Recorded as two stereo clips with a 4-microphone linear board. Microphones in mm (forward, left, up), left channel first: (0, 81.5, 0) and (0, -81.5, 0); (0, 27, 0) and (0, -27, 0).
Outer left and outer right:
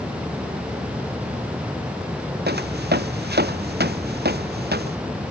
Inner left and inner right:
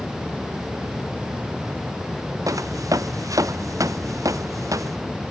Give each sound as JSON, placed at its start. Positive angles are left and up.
{"t": 2.5, "sound": "footsteps", "side_deg": -90}